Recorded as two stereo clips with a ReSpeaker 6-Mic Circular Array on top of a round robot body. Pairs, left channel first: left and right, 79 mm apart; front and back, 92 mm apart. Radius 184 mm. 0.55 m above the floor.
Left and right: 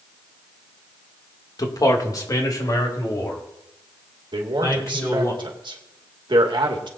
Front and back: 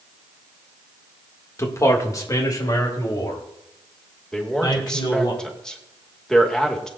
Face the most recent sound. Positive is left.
turn(degrees=-85)